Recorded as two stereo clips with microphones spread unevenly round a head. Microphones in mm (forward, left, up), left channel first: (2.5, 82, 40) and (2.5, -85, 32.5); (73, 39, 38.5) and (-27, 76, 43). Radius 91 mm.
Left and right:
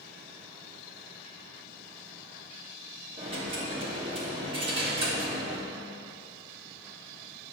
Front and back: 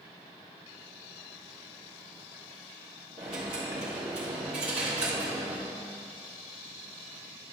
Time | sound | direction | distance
3.2 | a dropped coin | 150° right | 1.0 m